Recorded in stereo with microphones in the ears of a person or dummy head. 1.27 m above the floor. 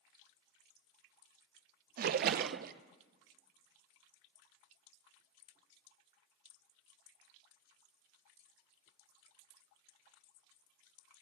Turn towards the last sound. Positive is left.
turn(degrees=-55)  # may be behind; listen again after turning